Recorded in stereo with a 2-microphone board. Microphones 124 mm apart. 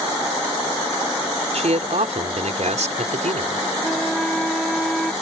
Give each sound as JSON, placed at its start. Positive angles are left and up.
{"t": 1.5, "sound": "a man speaking", "side_deg": -70}
{"t": 3.8, "sound": "a flute", "side_deg": 5}